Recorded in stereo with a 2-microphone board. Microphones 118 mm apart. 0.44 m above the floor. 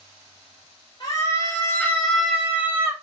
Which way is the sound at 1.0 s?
45° left (ahead or behind).